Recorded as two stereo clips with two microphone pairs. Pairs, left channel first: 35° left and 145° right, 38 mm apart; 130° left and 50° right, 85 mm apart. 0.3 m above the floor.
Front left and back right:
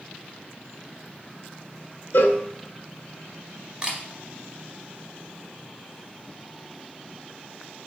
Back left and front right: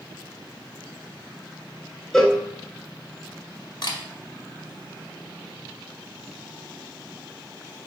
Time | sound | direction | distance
2.1 | a cowbell | 40° left | 0.5 m
3.8 | a camera shutter | 155° left | 0.8 m